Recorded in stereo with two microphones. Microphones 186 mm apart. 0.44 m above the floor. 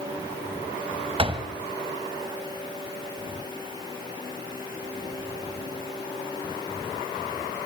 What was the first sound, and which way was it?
A door slam, 30° right (ahead or behind).